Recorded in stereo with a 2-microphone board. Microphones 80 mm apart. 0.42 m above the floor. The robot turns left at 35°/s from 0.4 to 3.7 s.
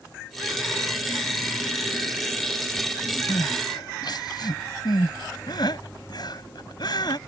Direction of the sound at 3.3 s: 60° left (ahead or behind).